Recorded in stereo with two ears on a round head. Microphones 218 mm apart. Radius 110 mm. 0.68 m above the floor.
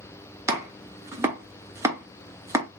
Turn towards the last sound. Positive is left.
turn(degrees=-10)  # may be behind; listen again after turning